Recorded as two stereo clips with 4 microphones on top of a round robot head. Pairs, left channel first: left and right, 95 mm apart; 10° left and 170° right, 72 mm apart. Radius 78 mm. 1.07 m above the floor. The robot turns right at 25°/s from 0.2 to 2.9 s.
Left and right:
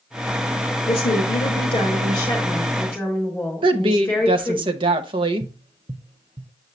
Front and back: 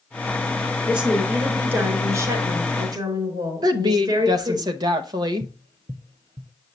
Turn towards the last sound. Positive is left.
turn(degrees=-145)